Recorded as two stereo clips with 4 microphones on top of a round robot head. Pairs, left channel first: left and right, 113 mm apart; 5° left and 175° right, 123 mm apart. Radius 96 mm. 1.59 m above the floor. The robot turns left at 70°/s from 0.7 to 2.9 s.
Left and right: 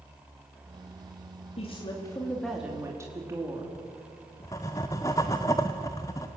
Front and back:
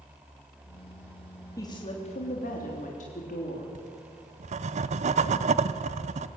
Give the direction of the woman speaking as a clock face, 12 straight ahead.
10 o'clock.